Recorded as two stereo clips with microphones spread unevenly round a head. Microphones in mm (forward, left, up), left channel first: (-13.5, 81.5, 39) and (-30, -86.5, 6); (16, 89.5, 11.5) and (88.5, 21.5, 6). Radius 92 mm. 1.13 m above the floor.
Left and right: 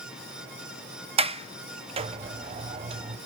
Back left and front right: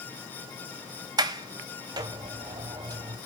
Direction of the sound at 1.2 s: 70° right.